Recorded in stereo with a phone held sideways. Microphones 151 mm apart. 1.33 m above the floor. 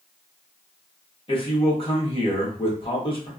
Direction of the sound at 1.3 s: 35° left (ahead or behind).